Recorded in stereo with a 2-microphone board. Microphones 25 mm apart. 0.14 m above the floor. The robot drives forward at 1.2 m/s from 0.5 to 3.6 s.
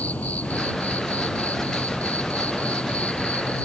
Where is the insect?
75° left (ahead or behind); by 3.6 s 60° left (ahead or behind).